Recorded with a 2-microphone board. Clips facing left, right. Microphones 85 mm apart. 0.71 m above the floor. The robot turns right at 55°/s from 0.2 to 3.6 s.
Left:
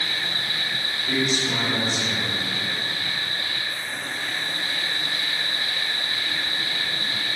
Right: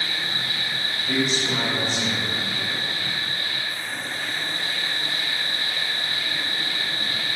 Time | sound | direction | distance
0.0 | an insect | 110° left | 1.5 m
1.0 | a man speaking | 155° left | 1.3 m